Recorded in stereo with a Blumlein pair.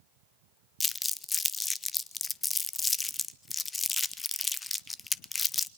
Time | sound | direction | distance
0.8 | crumpling | 15° left | 0.5 m